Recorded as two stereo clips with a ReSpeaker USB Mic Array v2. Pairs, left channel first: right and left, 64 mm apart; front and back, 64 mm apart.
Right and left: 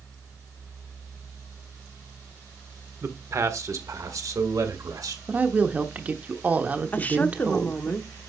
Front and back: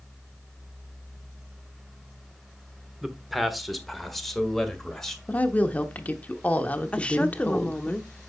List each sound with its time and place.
3.0 s a man speaking: 95° left, 1.2 m; by 5.2 s 85° left, 2 m
5.3 s a woman speaking: 45° left, 1.0 m
6.9 s a woman speaking: 50° right, 0.8 m